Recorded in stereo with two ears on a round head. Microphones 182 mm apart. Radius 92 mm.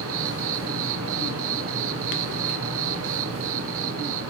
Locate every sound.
0.0 s an insect: 70° right (ahead or behind), 1.0 m